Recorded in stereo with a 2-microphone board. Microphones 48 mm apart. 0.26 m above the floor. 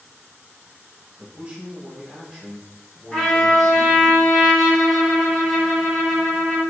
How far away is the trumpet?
About 0.9 m.